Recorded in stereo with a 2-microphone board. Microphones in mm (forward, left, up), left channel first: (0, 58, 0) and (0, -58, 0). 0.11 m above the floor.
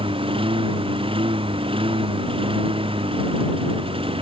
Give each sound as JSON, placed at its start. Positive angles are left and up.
{"t": 0.0, "sound": "a lawn mower", "side_deg": -50}